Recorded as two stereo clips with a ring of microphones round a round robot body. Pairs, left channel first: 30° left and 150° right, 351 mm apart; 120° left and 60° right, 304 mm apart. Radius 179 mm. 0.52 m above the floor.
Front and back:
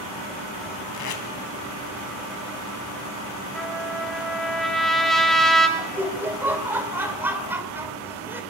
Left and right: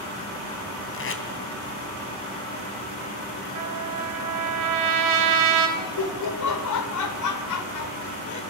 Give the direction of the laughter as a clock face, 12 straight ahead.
8 o'clock.